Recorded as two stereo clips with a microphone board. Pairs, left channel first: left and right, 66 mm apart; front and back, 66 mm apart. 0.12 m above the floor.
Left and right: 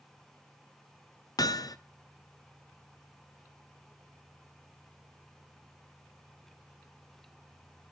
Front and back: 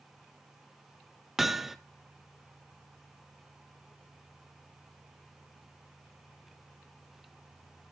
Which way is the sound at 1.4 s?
95° left.